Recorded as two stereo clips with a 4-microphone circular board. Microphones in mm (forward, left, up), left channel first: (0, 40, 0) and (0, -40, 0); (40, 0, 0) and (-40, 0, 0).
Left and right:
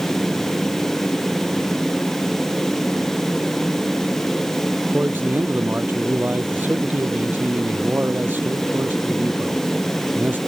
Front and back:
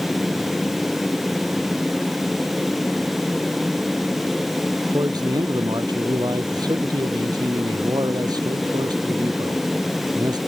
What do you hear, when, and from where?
4.9 s a man speaking: 155° right